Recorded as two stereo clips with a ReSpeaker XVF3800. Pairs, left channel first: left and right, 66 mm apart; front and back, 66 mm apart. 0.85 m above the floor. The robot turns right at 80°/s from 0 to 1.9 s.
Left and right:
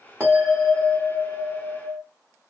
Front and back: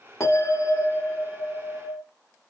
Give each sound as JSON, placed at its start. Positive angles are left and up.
{"t": 0.2, "sound": "a bell", "azimuth_deg": -35, "distance_m": 1.8}